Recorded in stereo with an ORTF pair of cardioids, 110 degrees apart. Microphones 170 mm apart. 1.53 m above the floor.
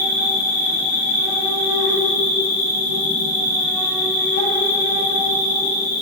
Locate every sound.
0.0 s an insect: 55° left, 0.9 m